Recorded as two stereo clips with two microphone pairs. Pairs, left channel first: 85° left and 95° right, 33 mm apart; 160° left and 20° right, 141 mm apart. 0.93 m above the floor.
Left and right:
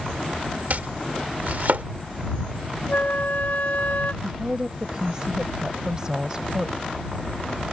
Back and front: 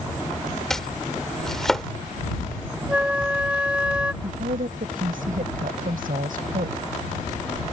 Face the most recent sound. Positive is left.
turn(degrees=-25)